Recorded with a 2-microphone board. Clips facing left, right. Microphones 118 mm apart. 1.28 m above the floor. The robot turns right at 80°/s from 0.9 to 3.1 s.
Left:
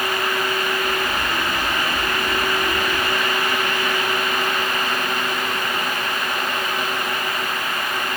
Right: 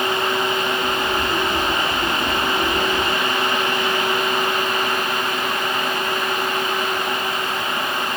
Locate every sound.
Only background noise.